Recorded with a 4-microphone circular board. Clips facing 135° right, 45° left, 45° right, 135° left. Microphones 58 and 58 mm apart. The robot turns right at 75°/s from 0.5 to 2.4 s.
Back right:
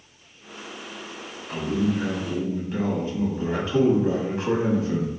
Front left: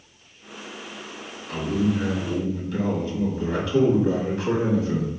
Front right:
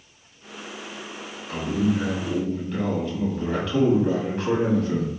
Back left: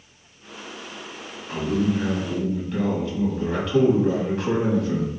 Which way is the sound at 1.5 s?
155° left.